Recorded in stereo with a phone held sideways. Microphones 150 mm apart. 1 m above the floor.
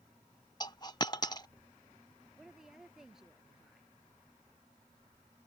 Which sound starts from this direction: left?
A dropped coin, at 0.6 s.